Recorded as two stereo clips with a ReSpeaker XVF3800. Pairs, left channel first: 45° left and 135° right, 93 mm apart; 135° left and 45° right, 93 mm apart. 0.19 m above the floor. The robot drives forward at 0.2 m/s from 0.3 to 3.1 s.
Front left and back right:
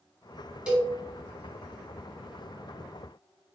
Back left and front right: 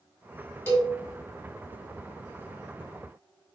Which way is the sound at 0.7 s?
160° left.